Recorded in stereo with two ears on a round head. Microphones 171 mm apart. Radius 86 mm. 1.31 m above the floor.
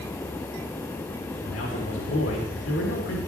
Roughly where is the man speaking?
Left.